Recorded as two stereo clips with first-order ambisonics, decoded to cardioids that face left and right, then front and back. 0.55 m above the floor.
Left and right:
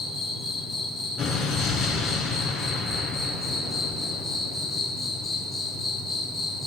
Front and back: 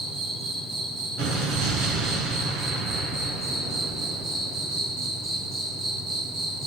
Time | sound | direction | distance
0.0 | an insect | 175° left | 1.8 m
1.2 | an explosion | 150° left | 2 m